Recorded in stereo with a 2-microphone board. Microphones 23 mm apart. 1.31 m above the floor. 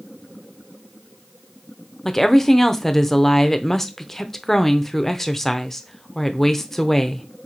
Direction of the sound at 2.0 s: 10° left (ahead or behind).